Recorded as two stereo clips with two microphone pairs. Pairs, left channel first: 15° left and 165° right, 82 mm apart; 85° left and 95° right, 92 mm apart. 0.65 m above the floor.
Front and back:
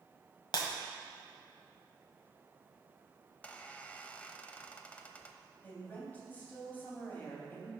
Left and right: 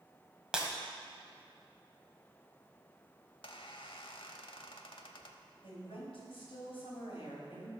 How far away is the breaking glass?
About 1.5 m.